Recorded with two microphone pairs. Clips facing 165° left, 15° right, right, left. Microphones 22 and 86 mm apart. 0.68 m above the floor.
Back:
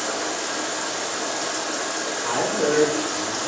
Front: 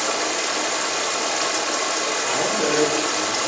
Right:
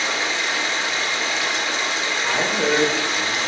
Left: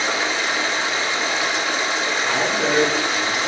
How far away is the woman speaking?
About 2 m.